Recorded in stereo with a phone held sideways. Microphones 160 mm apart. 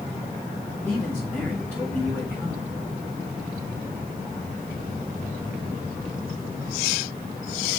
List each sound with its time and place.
0.8 s a man speaking: 5° left (ahead or behind), 4.5 m